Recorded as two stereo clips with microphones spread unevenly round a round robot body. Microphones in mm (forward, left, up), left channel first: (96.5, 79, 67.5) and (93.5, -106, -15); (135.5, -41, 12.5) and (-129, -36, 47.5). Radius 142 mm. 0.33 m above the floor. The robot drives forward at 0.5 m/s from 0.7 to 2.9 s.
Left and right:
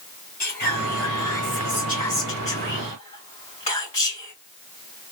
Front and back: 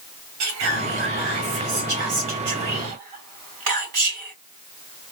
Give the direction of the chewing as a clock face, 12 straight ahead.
No chewing in this recording.